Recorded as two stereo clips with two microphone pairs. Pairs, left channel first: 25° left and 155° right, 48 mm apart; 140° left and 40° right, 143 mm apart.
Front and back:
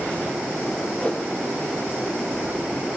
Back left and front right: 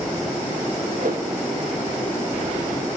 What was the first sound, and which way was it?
A whoosh, 40° right.